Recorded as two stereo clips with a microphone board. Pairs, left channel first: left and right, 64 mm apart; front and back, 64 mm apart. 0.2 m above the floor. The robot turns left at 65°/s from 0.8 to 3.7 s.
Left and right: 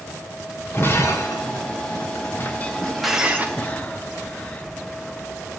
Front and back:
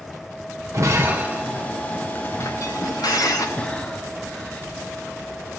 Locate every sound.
0.7 s breaking glass: 145° left, 2.0 m; by 3.5 s 30° right, 2.0 m
3.6 s breathing: 55° left, 0.9 m; by 4.7 s 45° left, 0.9 m